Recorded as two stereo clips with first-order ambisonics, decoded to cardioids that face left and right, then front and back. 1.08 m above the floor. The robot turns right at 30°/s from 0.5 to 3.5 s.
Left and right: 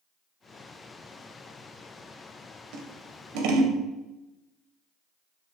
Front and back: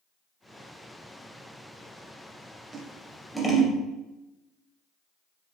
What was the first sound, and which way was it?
Scissors, 105° right.